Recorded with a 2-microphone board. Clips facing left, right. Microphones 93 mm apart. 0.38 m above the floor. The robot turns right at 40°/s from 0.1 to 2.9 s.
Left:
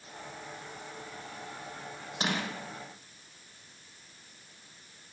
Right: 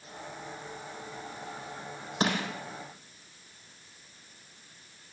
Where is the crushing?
45° right (ahead or behind), 5.5 m; by 2.4 s 35° right (ahead or behind), 5.5 m.